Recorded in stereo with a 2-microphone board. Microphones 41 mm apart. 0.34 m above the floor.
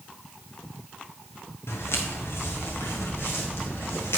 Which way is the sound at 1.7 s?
75° left (ahead or behind).